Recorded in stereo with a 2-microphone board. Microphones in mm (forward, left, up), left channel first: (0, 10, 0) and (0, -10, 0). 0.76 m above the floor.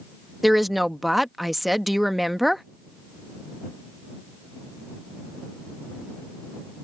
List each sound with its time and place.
0.4 s a woman speaking: 10° right (ahead or behind)